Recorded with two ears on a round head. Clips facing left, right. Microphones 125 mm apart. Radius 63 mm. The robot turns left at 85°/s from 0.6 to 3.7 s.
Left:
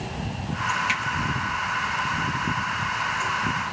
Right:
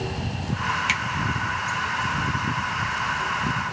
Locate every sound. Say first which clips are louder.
0.9 s a finger snap: even; 30° right (ahead or behind), 0.9 m; by 1.0 s 35° right (ahead or behind), 0.9 m